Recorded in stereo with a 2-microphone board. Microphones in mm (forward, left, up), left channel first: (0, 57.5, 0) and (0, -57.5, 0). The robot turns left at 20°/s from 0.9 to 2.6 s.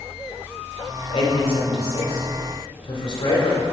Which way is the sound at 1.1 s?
55° left (ahead or behind).